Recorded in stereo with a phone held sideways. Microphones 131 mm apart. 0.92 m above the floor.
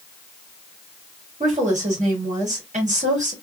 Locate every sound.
1.4 s a woman speaking: 60° right (ahead or behind), 2 m